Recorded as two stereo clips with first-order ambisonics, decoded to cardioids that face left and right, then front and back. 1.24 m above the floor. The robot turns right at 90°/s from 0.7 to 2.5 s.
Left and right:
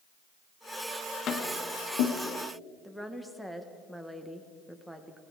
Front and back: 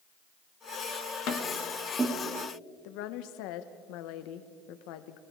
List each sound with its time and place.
1.3 s tapping: 35° left, 3 m; by 2.1 s 115° left, 3 m
2.8 s a woman speaking: straight ahead, 1.4 m